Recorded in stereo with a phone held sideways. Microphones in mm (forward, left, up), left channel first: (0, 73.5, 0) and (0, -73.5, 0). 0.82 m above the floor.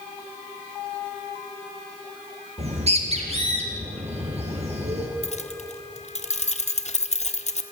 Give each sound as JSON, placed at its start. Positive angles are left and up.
{"t": 2.6, "sound": "a bird", "side_deg": -45, "distance_m": 3.5}
{"t": 5.2, "sound": "keys jangling", "side_deg": 50, "distance_m": 1.3}